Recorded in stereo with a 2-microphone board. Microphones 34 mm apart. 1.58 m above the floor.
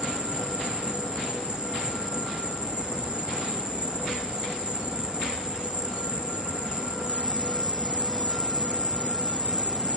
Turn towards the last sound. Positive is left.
turn(degrees=-25)  # may be behind; listen again after turning